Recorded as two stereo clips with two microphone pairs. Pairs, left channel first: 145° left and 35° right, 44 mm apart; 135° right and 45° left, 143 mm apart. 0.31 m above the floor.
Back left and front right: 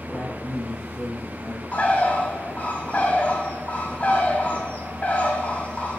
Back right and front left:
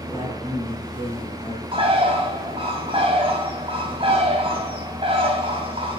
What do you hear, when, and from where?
0.1 s a man speaking: 90° left, 5 m
1.7 s a bird: 90° left, 2.5 m